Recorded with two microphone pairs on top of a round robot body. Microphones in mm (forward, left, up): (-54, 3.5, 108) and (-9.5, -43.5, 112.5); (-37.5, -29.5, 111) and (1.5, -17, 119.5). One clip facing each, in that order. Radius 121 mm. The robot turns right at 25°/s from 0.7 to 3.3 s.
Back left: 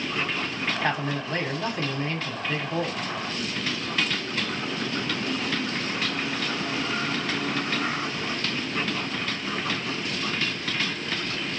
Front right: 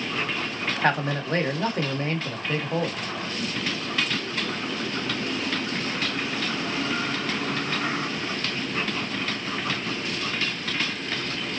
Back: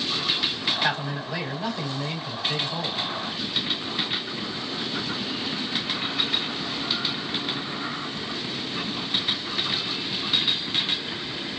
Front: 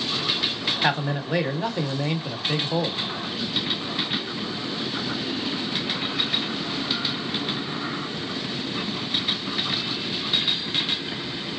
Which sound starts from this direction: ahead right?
A man speaking, at 0.8 s.